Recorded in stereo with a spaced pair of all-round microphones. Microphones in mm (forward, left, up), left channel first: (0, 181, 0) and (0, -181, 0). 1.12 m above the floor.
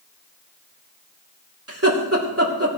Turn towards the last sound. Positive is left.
turn(degrees=-40)  # may be behind; listen again after turning